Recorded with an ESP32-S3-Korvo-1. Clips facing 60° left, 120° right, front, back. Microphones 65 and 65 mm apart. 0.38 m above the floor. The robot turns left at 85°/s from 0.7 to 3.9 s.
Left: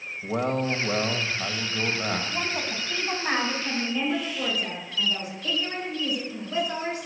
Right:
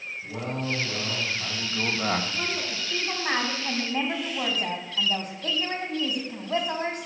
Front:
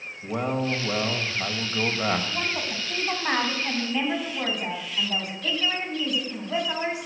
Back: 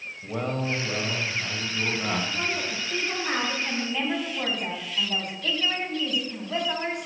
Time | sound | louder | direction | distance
0.2 | a man speaking | left 7 dB, front 3 dB | 75° left | 2.0 m
2.3 | a woman speaking | left 1 dB, even | 50° left | 3.5 m